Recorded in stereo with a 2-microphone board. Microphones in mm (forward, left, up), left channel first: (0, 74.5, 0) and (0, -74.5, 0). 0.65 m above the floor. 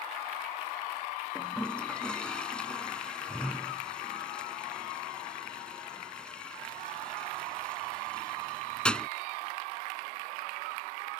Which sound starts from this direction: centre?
A toilet flushing, at 1.4 s.